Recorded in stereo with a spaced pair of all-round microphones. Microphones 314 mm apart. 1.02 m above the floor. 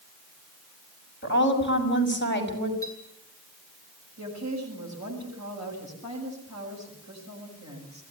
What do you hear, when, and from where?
1.2 s a woman speaking: 40° left (ahead or behind), 6 m
2.8 s a clink: 10° left (ahead or behind), 8.5 m
4.2 s a woman speaking: 65° right (ahead or behind), 6.5 m